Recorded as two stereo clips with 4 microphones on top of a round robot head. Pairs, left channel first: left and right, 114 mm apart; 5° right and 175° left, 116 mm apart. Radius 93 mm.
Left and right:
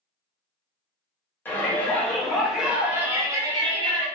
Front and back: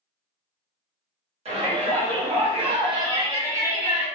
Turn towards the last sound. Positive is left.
turn(degrees=-110)